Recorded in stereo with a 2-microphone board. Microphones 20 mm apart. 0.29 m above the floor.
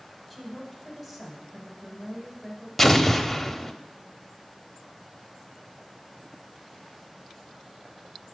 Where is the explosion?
10° left (ahead or behind), 0.6 m.